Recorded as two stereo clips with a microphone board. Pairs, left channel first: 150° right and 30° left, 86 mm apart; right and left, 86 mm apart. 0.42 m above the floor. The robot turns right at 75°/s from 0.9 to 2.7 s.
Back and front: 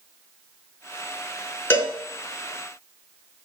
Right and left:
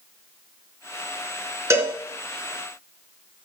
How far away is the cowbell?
About 3 m.